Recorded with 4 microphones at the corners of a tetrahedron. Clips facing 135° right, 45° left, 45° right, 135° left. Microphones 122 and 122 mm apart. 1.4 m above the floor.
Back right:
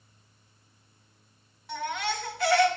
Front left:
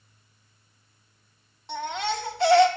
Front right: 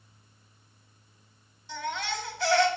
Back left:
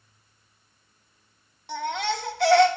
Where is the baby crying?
110° left, 1.3 m.